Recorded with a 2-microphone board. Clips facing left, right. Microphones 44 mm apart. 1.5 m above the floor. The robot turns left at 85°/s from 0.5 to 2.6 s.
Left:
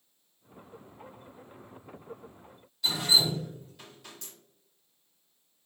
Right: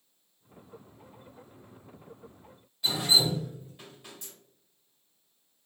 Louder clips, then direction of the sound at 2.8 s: Even; 25° right (ahead or behind).